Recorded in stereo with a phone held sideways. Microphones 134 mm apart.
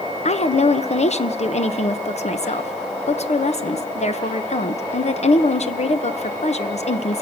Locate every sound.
0.2 s a woman speaking: 60° left (ahead or behind), 1.1 m